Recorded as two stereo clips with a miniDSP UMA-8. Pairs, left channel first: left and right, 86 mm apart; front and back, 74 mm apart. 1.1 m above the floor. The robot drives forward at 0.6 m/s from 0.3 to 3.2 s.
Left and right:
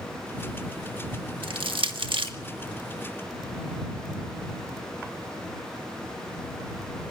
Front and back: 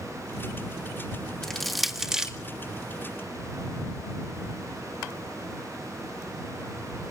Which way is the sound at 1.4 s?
85° right.